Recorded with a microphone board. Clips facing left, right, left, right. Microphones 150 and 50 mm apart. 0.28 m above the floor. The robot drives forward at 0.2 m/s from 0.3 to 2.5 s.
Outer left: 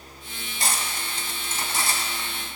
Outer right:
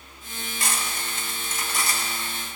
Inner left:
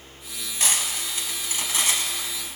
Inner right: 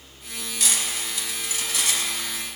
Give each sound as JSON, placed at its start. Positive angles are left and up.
{"t": 0.6, "sound": "cutlery clinking", "side_deg": 35, "distance_m": 0.9}